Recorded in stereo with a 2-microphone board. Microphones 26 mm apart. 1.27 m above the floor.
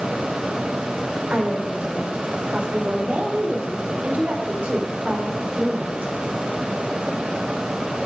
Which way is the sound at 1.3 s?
75° right (ahead or behind).